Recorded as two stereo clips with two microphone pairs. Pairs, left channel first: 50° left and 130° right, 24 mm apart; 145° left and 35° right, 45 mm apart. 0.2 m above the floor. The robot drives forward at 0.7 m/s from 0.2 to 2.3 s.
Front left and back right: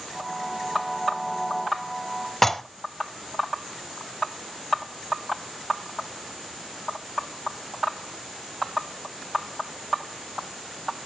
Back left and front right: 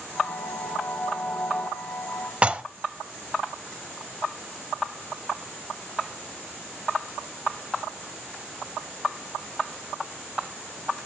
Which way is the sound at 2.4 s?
5° right.